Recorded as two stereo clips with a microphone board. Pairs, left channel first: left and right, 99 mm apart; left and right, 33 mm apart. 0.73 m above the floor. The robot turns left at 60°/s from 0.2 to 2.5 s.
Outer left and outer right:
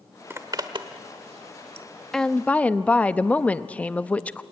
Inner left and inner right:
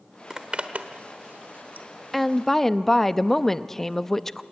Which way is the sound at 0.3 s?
25° right (ahead or behind).